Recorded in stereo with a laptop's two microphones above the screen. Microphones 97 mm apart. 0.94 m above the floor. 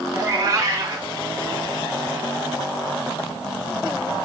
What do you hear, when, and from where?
0.1 s a cat meowing: 35° right (ahead or behind), 1.6 m